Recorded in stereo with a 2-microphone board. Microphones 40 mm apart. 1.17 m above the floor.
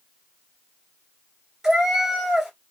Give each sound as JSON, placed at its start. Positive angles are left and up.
{"t": 1.6, "sound": "a cat meowing", "side_deg": -15, "distance_m": 1.5}